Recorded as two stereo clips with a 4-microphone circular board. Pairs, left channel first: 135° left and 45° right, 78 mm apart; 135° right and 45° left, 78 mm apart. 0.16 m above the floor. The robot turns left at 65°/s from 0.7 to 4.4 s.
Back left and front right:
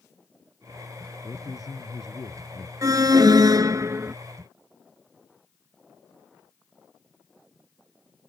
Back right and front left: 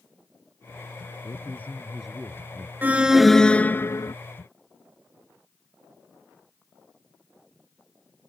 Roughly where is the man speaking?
Behind.